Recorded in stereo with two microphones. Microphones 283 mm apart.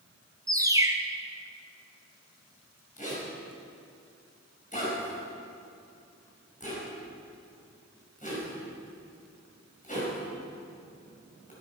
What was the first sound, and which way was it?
A bird, 10° right (ahead or behind).